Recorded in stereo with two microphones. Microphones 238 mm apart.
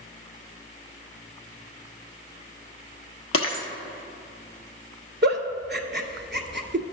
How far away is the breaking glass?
About 1.1 m.